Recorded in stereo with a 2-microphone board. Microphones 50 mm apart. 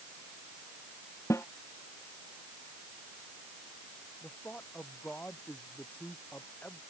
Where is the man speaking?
30° left (ahead or behind).